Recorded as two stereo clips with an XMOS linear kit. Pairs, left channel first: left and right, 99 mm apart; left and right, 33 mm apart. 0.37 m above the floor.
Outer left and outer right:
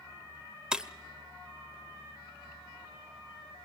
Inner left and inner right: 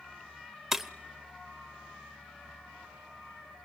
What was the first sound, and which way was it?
Breaking glass, 10° right (ahead or behind).